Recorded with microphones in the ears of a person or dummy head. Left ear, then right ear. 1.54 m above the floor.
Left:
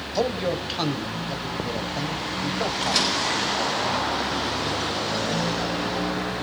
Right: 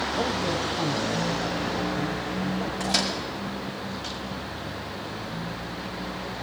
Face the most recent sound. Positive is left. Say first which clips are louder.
# left 3 dB
turn(degrees=-35)  # may be behind; listen again after turning